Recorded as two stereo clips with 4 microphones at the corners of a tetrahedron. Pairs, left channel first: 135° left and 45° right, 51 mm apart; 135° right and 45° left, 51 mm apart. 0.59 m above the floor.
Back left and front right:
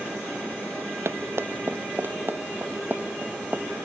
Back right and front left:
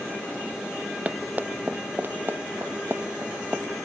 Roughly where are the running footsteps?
Ahead.